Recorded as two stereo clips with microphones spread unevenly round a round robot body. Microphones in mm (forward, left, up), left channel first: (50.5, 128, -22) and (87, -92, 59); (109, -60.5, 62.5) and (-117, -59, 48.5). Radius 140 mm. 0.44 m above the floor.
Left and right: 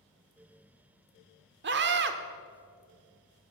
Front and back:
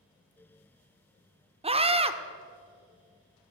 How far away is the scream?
About 1.4 m.